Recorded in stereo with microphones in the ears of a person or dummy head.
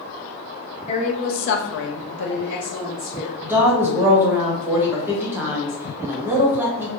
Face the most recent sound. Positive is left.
turn(degrees=-10)  # may be behind; listen again after turning